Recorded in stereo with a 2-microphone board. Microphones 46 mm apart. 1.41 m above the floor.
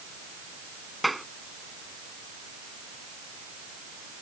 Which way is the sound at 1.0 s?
Centre (ahead or behind).